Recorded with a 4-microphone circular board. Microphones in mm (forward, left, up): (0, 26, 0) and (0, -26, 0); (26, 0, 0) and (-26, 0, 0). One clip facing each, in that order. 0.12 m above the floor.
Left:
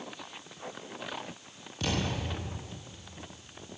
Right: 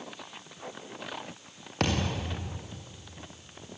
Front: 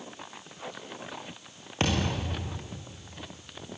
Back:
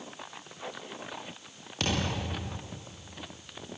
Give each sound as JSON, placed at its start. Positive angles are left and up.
{"t": 1.8, "sound": "a thud", "azimuth_deg": -60, "distance_m": 7.5}